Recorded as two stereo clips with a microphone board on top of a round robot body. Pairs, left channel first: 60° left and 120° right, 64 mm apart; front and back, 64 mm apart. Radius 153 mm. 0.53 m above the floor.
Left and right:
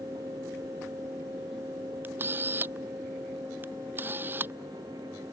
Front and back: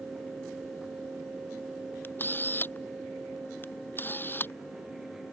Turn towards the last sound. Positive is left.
turn(degrees=-60)